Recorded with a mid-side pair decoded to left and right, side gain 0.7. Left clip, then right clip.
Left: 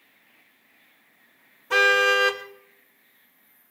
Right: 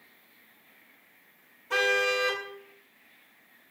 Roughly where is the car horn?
Ahead left.